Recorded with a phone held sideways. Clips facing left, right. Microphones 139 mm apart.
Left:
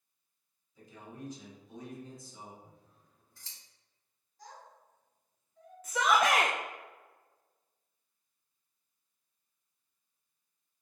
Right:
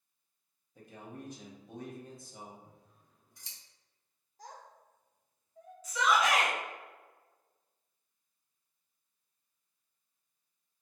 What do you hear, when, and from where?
0.8 s a man speaking: 60° right (ahead or behind), 1.4 m
2.6 s scissors: 15° right (ahead or behind), 1.3 m
4.4 s a child speaking: 45° right (ahead or behind), 1.2 m
5.8 s a shout: 60° left (ahead or behind), 0.5 m